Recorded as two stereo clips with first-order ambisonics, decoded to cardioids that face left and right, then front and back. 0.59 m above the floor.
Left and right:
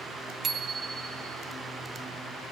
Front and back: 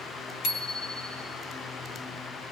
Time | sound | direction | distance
0.4 | a bicycle bell | 30° right | 4 m